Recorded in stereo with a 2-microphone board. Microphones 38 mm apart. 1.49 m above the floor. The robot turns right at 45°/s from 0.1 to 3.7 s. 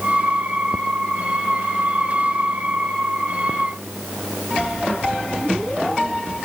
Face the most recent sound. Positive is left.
No sound to turn to.